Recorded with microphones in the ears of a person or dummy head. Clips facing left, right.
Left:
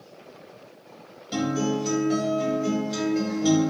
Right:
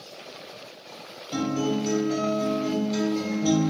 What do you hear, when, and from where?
1.3 s a guitar: 10° left (ahead or behind), 3.5 m